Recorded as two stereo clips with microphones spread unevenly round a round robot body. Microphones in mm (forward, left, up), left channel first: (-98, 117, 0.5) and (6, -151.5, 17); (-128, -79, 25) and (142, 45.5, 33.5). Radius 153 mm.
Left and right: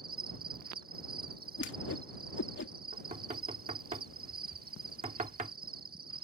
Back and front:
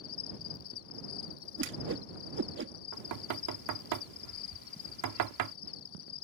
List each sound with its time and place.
0.0 s an insect: 130° right
1.6 s a whoosh: 70° left
2.9 s knocking: straight ahead